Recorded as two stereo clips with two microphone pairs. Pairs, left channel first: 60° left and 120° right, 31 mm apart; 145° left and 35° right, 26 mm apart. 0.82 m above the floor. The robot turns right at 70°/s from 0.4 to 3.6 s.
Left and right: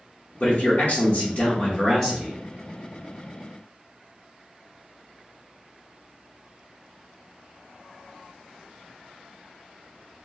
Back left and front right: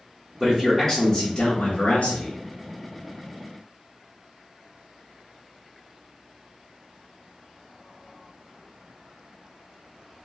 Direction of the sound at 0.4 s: 20° left.